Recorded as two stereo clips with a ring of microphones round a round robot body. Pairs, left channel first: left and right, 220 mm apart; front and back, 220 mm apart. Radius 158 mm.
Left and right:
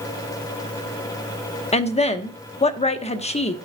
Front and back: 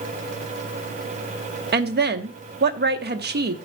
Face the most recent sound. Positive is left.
turn(degrees=145)